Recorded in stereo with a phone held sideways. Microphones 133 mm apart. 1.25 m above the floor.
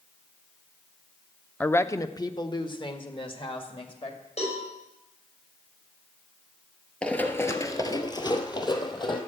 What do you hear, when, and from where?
1.6 s a woman speaking: 10° left (ahead or behind), 0.5 m; by 4.2 s 40° left (ahead or behind), 2.5 m
4.4 s a cowbell: 55° left (ahead or behind), 5.5 m
7.0 s running footsteps: 10° left (ahead or behind), 1.3 m; by 9.2 s 30° left (ahead or behind), 2.5 m